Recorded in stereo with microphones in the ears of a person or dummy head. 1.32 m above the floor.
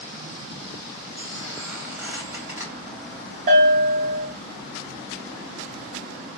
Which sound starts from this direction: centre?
A squeak, at 1.2 s.